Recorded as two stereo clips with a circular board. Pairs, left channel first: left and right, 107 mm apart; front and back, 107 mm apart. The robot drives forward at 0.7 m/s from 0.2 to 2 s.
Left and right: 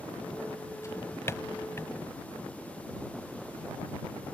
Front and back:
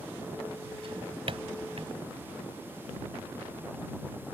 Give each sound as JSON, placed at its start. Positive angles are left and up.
{"t": 0.8, "sound": "a drawer", "azimuth_deg": 150}